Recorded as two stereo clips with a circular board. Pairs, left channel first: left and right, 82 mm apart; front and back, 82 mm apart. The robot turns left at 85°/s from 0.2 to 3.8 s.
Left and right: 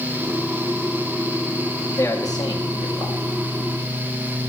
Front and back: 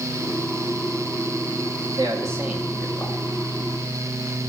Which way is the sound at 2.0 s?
155° left.